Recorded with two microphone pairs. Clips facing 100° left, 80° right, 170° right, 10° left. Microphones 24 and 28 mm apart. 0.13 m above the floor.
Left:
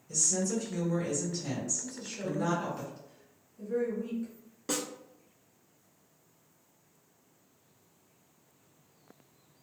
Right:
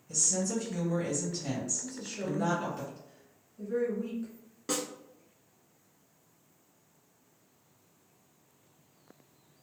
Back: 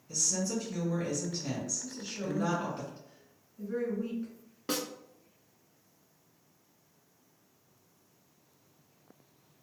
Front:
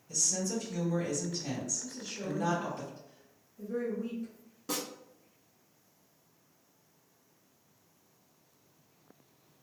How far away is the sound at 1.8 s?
About 1.2 m.